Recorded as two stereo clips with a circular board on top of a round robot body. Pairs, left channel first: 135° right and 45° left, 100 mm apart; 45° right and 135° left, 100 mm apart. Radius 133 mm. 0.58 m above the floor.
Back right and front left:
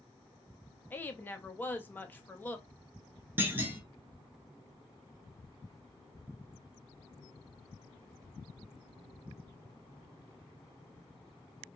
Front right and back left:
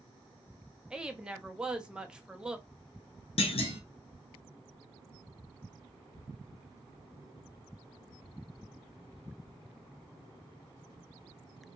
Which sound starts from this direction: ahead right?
A clunk, at 3.4 s.